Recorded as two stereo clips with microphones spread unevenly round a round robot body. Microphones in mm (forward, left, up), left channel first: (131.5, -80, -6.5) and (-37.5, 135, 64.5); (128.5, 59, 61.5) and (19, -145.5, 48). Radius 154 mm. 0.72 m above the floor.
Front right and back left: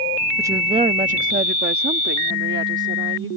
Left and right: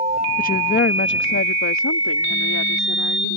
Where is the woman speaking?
35° left; by 3.3 s 80° left.